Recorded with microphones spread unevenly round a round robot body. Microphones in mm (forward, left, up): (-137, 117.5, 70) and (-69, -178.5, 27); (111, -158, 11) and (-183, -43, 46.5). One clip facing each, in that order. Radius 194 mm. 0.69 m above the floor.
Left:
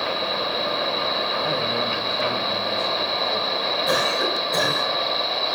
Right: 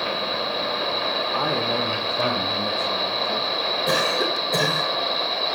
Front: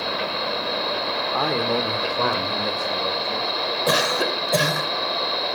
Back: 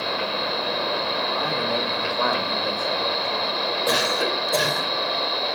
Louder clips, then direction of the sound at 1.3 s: Right 2 dB, front 6 dB; 40° right.